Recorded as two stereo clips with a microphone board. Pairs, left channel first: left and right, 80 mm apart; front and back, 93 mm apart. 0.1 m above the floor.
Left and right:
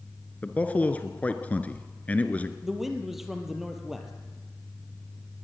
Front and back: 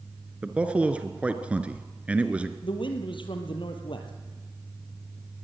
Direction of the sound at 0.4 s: 125° left.